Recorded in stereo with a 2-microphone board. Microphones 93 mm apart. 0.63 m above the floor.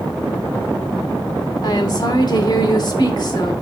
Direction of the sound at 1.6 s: 45° left (ahead or behind).